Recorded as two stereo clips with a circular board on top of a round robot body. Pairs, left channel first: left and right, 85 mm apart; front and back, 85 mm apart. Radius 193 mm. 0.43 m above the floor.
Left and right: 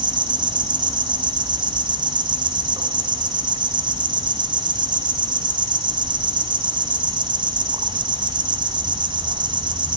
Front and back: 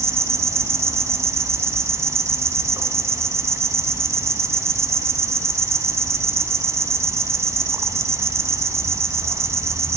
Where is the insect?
120° right, 0.8 m.